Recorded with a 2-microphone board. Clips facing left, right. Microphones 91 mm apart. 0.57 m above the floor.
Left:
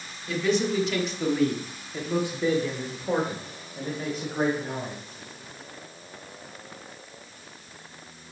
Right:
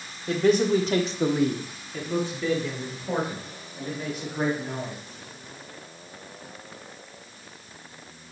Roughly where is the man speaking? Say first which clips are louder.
Right 4 dB; right.